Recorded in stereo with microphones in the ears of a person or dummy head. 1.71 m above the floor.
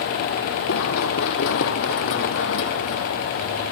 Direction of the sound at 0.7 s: 55° left (ahead or behind).